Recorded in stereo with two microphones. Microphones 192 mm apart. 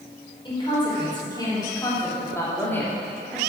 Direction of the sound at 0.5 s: 25° left (ahead or behind).